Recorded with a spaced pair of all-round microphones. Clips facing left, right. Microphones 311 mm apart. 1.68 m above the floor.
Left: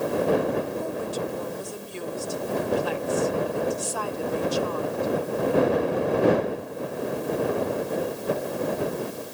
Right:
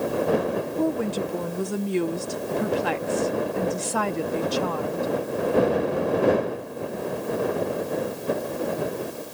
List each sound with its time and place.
0.8 s a woman speaking: 65° right (ahead or behind)